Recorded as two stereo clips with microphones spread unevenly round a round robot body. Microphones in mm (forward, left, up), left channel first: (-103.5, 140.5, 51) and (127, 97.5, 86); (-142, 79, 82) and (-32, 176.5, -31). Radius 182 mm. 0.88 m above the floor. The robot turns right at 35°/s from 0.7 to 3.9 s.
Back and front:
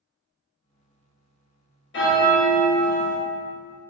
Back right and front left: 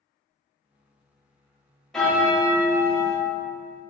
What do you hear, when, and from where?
1.9 s a bell: 130° left, 0.7 m; by 3.2 s 170° left, 0.7 m